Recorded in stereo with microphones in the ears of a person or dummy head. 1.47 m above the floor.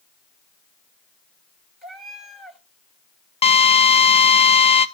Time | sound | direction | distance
1.8 | a cat meowing | 5° right (ahead or behind) | 2 m
3.4 | a drill | 30° left (ahead or behind) | 0.7 m